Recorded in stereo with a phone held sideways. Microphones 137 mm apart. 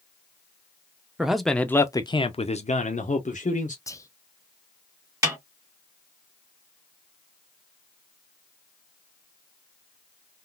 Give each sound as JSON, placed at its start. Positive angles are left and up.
{"t": 1.2, "sound": "a man speaking", "side_deg": -5, "distance_m": 0.7}
{"t": 3.9, "sound": "whispering", "side_deg": 25, "distance_m": 0.5}
{"t": 5.2, "sound": "a snare drum", "side_deg": -25, "distance_m": 1.9}